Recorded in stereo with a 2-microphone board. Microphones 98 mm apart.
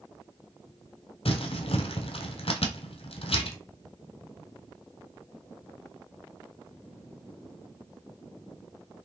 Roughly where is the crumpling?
Left.